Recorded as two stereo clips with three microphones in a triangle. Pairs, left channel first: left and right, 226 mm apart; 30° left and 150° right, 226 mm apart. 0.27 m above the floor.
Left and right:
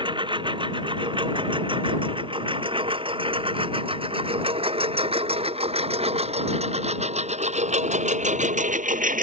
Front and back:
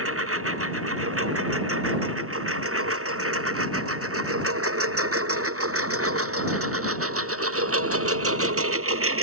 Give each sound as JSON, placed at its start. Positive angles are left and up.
{"t": 0.0, "sound": "a lawn mower", "azimuth_deg": -160}